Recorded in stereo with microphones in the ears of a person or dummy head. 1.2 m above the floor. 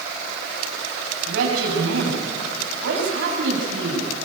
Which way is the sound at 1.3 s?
85° right.